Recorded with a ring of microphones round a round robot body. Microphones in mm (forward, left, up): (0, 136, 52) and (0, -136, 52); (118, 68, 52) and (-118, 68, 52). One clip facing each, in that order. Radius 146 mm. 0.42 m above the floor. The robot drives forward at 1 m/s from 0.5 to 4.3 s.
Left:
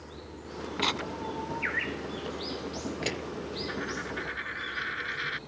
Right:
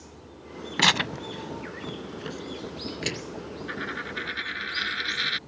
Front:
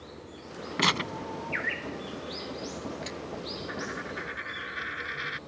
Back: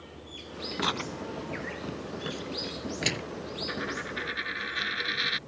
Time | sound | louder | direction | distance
0.8 | tearing paper | right 4 dB, front 2 dB | 60° right | ?
3.7 | a dropped coin | left 1 dB, back 1 dB | 120° right | ?